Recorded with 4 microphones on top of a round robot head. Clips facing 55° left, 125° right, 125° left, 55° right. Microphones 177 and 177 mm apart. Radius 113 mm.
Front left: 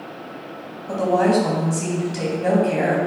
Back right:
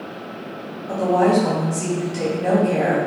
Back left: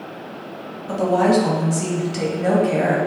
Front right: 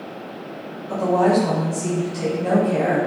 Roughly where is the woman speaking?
Behind left.